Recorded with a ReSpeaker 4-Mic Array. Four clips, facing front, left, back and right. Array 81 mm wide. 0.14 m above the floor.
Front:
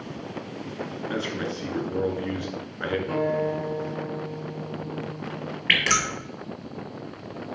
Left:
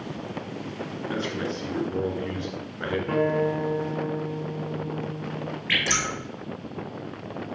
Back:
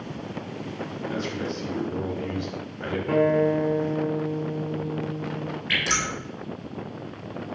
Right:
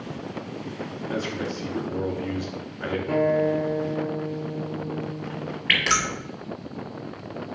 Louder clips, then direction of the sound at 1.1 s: Even, front 1 dB; 20° left.